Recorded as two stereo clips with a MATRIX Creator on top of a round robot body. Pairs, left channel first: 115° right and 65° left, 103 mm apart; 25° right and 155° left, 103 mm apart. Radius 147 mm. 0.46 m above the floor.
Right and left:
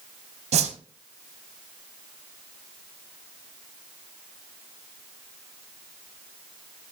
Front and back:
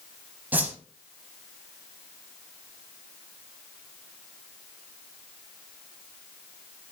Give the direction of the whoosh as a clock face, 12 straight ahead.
9 o'clock.